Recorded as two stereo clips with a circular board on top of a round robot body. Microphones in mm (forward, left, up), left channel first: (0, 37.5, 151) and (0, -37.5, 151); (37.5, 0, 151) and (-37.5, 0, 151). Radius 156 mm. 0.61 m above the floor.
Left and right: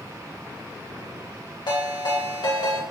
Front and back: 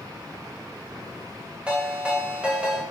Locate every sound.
1.7 s a ringtone: 105° left, 2.5 m